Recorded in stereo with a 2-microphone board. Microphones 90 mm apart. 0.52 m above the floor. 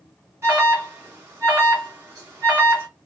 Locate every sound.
0.4 s an alarm: 25° right (ahead or behind), 2.0 m